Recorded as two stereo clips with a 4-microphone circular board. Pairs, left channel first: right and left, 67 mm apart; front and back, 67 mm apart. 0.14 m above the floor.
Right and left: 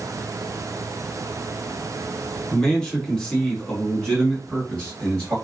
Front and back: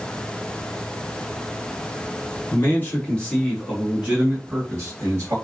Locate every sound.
2.5 s a man speaking: 15° right, 1.3 m; by 5.3 s 175° right, 1.6 m